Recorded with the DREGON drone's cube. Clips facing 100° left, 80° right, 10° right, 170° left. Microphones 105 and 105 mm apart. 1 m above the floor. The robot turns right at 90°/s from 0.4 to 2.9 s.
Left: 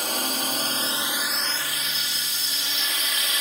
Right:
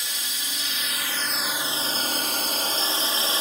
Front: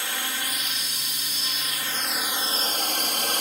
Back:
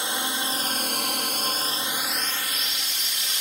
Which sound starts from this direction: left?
A drone, at 0.0 s.